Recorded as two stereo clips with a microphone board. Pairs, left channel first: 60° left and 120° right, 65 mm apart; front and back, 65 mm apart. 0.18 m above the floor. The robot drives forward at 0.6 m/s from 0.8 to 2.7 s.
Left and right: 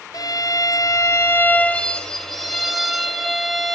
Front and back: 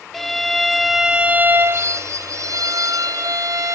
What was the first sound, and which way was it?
A violin, 85° left.